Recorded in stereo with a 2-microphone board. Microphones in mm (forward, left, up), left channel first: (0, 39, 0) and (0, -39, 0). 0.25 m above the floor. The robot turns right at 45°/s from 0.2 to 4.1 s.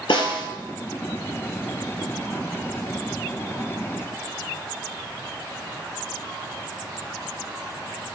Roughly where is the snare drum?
Left.